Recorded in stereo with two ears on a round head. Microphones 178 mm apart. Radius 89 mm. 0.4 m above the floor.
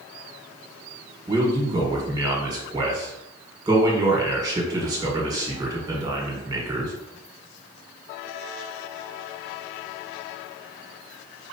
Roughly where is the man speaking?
Centre.